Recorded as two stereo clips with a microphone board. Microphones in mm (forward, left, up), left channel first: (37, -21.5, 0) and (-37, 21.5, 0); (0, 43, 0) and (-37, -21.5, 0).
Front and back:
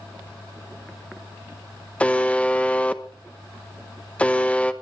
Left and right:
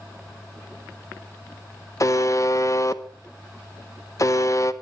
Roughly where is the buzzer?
Ahead left.